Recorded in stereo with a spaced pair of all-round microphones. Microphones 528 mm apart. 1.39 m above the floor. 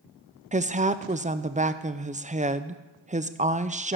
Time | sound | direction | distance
0.5 | a woman speaking | 15° right (ahead or behind) | 0.5 m